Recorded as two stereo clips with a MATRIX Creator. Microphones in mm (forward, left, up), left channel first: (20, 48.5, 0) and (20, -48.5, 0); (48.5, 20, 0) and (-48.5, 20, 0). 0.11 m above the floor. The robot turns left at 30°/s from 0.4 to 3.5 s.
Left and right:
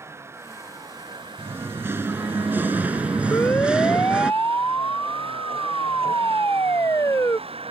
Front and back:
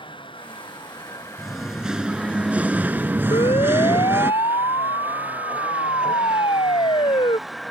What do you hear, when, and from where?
0.0 s a vehicle: 30° right; by 7.7 s 90° right
1.4 s singing: 90° right; by 4.3 s 155° right
3.3 s a siren: 25° left; by 7.4 s 30° left